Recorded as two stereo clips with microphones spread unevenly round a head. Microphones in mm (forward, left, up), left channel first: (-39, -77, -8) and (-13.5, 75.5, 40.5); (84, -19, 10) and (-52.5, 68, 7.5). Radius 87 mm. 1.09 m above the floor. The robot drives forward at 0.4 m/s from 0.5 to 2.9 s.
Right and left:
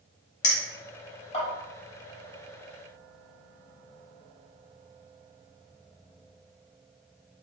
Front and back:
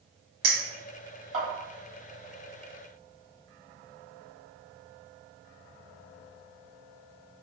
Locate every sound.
0.4 s a clink: 150° right, 1.1 m; by 1.4 s 155° right, 1.4 m